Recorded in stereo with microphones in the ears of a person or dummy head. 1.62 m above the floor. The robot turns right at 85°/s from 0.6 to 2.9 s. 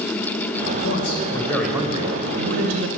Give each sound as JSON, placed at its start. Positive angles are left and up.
{"t": 0.8, "sound": "a man speaking", "azimuth_deg": 105, "distance_m": 1.1}